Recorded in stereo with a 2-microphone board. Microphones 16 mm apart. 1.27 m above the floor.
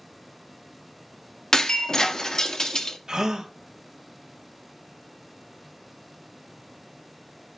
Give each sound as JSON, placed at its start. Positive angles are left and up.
{"t": 1.5, "sound": "breaking glass", "side_deg": 45, "distance_m": 0.8}
{"t": 3.1, "sound": "a gasp", "side_deg": -60, "distance_m": 1.2}